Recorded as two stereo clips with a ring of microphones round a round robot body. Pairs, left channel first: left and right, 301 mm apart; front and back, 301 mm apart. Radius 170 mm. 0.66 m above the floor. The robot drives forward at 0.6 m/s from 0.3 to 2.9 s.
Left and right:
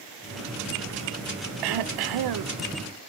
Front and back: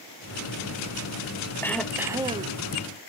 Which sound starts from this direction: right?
Throat clearing, at 1.6 s.